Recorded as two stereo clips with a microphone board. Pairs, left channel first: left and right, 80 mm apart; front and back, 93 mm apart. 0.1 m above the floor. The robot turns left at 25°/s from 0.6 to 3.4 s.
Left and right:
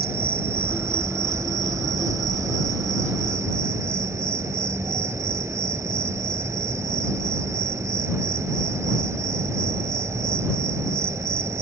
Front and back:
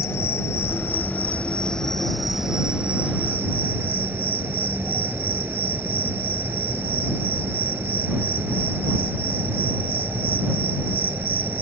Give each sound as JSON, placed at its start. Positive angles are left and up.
{"t": 0.0, "sound": "an insect", "azimuth_deg": -50}